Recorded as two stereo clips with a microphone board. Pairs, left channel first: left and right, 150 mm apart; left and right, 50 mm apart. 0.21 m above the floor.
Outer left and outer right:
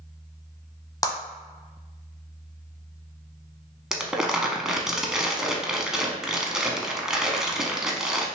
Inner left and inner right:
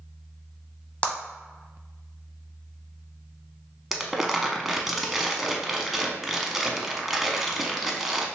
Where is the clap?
25° left (ahead or behind), 0.8 m.